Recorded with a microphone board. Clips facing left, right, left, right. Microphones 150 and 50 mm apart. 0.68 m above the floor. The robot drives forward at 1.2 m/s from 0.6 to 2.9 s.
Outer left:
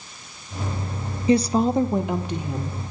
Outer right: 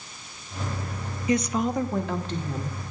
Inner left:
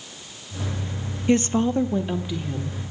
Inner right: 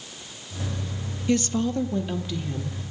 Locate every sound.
1.3 s a woman speaking: 30° left (ahead or behind), 0.6 m; by 2.8 s 10° left (ahead or behind), 1.6 m